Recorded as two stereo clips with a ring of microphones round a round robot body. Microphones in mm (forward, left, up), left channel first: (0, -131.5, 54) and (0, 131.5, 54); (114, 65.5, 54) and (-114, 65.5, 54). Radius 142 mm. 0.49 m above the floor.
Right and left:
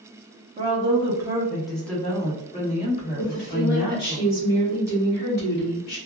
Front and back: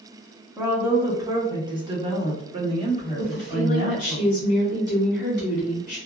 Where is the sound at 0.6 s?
105° left, 1.2 m; by 4.2 s 125° right, 1.8 m.